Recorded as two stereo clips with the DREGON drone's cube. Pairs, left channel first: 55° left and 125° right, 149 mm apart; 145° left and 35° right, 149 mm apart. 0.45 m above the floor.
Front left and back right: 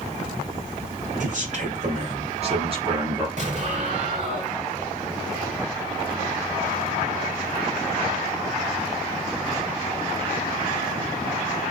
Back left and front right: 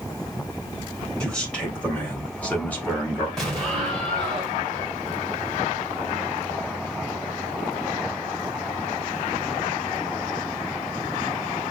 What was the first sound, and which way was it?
A man speaking, 130° right.